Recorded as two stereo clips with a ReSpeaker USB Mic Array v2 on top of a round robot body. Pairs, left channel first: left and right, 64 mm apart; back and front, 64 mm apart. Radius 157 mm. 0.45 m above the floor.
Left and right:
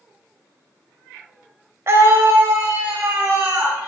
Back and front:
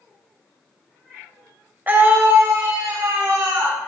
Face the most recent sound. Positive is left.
turn(degrees=-30)